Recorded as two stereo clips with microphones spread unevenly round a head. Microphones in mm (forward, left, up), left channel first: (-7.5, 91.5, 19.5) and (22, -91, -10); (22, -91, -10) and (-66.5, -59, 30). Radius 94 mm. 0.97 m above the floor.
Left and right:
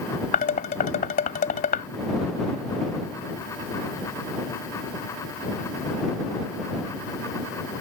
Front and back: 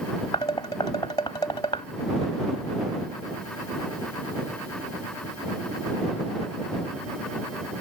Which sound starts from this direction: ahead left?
Dishes clattering, at 0.3 s.